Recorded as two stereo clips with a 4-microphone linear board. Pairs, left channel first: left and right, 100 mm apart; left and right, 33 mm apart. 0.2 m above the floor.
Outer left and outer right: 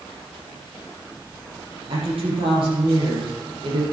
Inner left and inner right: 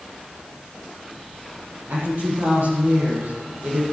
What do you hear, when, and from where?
1.9 s a woman speaking: 65° right (ahead or behind), 7.5 m